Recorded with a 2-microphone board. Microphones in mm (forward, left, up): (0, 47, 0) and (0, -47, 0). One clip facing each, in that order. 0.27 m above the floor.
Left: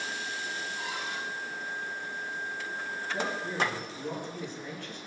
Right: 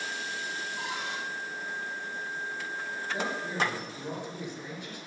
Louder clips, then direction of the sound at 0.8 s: Right 1 dB; 75° right (ahead or behind).